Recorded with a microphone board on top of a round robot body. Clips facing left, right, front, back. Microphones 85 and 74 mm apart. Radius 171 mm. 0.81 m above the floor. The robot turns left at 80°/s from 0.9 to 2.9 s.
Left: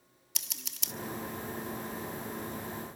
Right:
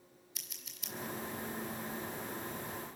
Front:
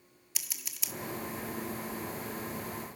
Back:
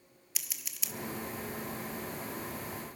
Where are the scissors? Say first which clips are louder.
Left 8 dB, front 1 dB; 90° left, 0.9 m; by 0.9 s 85° left, 0.9 m.